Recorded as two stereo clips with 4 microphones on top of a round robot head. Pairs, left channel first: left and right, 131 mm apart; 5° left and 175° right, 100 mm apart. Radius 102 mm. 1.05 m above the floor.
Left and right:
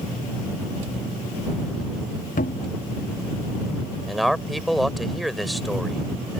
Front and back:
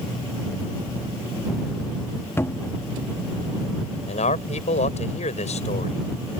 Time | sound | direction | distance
2.4 | a cupboard door | 70° left | ?
4.1 | a man speaking | straight ahead | ?